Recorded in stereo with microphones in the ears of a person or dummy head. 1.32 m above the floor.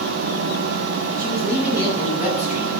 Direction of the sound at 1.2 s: 15° right (ahead or behind).